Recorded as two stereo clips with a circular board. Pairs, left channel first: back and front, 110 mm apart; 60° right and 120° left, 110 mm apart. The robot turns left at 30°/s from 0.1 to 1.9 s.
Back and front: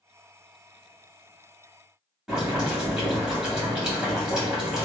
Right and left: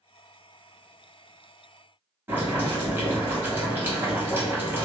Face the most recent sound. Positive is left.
turn(degrees=80)